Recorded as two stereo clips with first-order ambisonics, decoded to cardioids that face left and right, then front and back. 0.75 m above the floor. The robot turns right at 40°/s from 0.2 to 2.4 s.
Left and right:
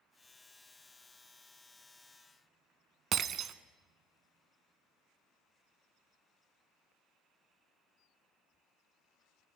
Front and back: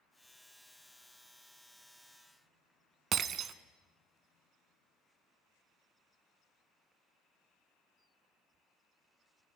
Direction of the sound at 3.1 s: 135° right.